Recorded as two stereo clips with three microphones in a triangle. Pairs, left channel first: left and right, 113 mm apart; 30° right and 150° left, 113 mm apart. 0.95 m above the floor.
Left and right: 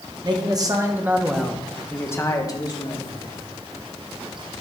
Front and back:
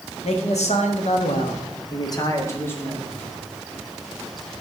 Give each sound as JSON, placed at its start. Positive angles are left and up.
{"t": 0.2, "sound": "a man speaking", "azimuth_deg": -45, "distance_m": 1.9}